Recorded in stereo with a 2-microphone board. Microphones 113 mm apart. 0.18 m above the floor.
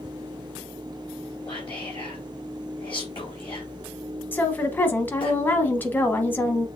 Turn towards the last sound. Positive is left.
turn(degrees=20)  # may be behind; listen again after turning